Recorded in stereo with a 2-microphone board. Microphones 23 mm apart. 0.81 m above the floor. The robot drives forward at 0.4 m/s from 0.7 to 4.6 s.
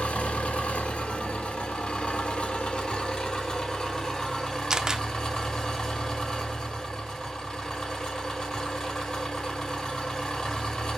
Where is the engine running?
85° left, 1.1 m; by 11.0 s 35° left (ahead or behind), 1.8 m.